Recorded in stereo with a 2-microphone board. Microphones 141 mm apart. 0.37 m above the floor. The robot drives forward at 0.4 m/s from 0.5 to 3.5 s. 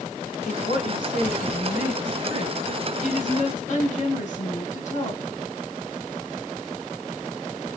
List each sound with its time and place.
0.5 s a woman speaking: 65° left (ahead or behind), 3 m; by 5.3 s 55° left (ahead or behind), 3 m